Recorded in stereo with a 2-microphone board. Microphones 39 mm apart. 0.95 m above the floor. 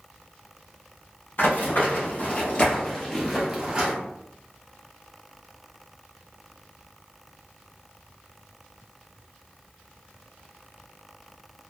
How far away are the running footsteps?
About 1.7 m.